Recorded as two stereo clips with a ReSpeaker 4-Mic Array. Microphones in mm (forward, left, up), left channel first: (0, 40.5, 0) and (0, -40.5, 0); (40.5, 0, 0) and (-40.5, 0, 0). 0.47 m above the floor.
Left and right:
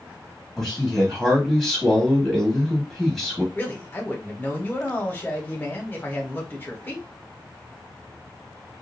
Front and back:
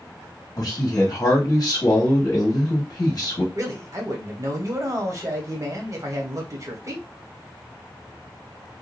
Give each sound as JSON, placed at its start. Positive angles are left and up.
{"t": 0.6, "sound": "a man speaking", "azimuth_deg": -5, "distance_m": 1.1}
{"t": 3.5, "sound": "a man speaking", "azimuth_deg": 155, "distance_m": 1.0}